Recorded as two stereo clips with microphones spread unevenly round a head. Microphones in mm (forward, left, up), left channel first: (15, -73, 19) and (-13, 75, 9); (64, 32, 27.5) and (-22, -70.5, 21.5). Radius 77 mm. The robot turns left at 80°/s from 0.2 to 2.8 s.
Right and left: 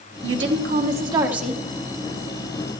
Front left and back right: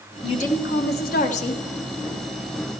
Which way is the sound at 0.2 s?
110° left.